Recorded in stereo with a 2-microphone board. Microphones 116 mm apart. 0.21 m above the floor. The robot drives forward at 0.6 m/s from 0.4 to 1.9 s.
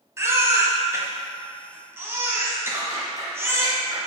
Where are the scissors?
25° right (ahead or behind), 2 m.